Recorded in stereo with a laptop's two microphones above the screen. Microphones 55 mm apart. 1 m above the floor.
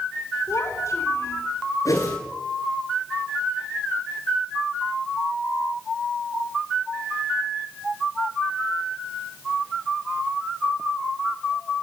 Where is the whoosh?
65° left (ahead or behind), 9.5 m.